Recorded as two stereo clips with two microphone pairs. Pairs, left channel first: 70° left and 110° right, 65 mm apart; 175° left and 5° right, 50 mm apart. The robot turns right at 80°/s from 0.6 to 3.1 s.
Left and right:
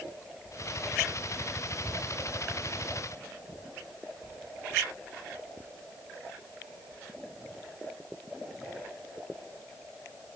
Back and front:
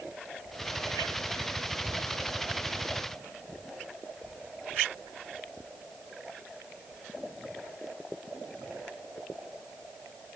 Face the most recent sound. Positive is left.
No sound to turn to.